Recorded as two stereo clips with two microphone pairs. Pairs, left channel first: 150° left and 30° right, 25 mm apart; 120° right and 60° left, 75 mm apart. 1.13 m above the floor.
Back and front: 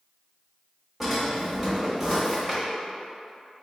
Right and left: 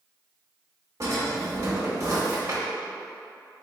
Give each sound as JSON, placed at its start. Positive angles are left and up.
{"t": 1.0, "sound": "a drawer", "azimuth_deg": 50, "distance_m": 1.1}